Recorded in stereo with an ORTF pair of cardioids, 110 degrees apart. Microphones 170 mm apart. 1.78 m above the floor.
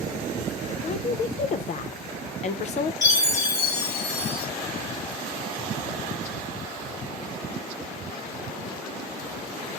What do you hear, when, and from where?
0.8 s a woman speaking: 45° left, 0.7 m
3.0 s a chime: 20° left, 1.3 m